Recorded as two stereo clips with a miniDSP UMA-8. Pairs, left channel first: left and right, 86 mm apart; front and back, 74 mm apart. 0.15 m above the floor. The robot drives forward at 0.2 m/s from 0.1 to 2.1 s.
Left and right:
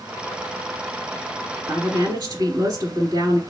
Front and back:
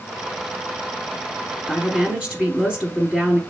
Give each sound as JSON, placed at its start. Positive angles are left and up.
{"t": 1.7, "sound": "a woman speaking", "azimuth_deg": -105, "distance_m": 1.3}